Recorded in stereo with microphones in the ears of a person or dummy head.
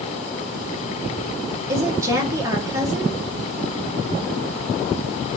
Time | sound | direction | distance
1.7 | a woman speaking | 15° right (ahead or behind) | 1.1 m